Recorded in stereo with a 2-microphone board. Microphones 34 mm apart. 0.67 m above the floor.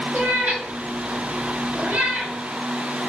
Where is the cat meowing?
60° right (ahead or behind), 1.2 m; by 2.4 s 50° right (ahead or behind), 1.4 m.